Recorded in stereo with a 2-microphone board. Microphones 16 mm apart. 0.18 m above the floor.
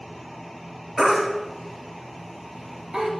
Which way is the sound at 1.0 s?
65° right (ahead or behind).